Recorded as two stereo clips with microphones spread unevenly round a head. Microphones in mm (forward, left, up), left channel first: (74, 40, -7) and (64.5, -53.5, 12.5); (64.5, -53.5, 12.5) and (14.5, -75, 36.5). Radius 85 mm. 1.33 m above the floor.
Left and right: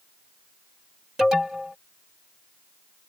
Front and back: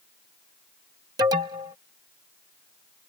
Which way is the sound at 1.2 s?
175° left.